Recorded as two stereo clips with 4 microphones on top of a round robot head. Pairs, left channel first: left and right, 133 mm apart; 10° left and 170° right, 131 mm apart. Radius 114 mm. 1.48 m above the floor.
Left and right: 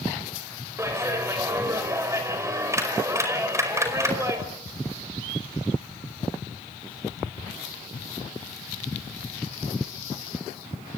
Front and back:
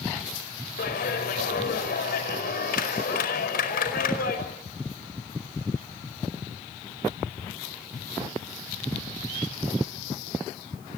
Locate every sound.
0.8 s a clap: 20° right, 5 m